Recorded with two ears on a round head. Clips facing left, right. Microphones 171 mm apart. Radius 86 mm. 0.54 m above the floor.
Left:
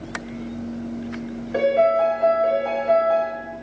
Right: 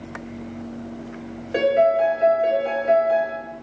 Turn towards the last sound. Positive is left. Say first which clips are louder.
# even
turn(degrees=-35)  # may be behind; listen again after turning